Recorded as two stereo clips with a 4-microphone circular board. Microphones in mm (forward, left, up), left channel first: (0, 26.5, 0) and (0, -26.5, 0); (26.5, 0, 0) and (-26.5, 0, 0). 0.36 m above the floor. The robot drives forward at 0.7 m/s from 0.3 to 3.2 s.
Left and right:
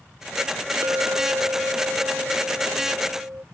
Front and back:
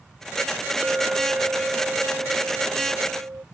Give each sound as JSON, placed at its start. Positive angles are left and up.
{"t": 0.8, "sound": "a clink", "azimuth_deg": -115}